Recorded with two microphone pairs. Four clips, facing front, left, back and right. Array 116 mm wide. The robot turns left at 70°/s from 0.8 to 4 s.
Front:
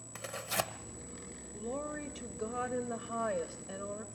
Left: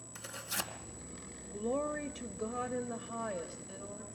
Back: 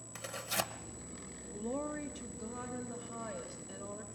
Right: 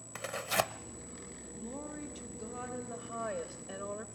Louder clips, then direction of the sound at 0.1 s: Right 10 dB, front 2 dB; 75° right.